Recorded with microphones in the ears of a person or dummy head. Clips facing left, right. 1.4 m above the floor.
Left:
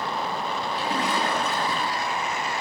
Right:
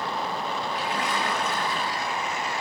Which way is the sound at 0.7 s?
40° left (ahead or behind).